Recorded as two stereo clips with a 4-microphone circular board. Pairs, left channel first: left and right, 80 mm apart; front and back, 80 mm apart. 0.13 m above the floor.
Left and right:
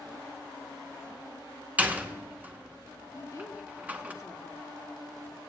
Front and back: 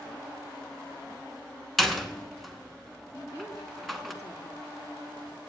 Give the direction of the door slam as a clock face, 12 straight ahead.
3 o'clock.